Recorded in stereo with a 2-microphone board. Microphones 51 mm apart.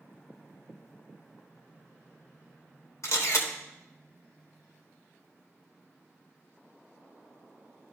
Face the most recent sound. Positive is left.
turn(degrees=65)  # may be behind; listen again after turning